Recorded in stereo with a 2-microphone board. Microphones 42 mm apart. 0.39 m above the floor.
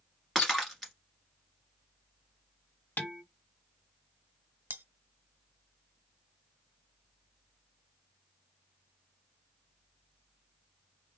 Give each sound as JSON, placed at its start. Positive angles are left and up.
{"t": 0.3, "sound": "breaking glass", "side_deg": 5, "distance_m": 1.6}
{"t": 3.0, "sound": "dishes clattering", "side_deg": 45, "distance_m": 1.0}
{"t": 4.7, "sound": "cutlery clinking", "side_deg": -50, "distance_m": 0.6}